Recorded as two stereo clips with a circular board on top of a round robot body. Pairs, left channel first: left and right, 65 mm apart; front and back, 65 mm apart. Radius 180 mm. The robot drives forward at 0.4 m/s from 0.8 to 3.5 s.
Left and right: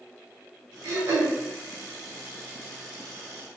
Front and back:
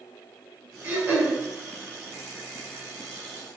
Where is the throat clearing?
125° right, 1.6 m; by 1.4 s 130° right, 1.7 m.